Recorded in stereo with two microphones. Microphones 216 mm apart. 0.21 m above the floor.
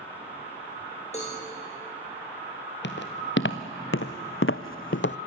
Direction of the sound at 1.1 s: 30° left (ahead or behind).